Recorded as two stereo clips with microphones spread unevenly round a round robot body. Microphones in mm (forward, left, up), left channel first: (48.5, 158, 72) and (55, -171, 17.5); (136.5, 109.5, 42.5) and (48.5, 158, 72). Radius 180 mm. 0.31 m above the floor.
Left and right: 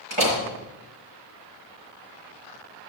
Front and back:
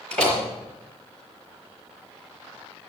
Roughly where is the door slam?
Behind.